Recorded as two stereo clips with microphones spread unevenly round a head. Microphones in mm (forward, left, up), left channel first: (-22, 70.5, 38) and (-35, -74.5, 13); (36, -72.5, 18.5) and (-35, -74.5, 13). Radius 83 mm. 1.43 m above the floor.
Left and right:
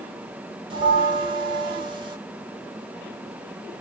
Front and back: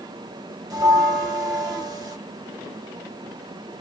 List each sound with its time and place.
0.7 s a bell: 150° right, 1.4 m